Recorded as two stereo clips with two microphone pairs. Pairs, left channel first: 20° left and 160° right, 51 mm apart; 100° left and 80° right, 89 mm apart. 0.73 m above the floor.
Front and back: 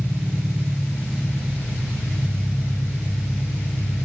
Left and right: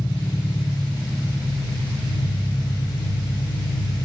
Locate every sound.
0.0 s an engine running: 115° left, 2 m